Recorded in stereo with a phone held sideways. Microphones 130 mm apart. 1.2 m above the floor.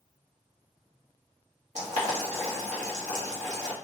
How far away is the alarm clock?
No alarm clock in this recording.